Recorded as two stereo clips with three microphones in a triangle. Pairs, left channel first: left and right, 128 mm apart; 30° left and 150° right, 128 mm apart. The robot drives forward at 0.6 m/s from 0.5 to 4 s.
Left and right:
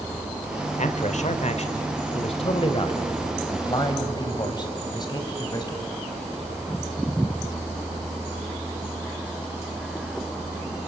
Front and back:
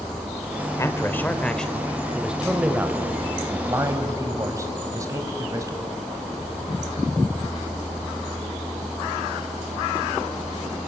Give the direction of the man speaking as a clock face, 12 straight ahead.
9 o'clock.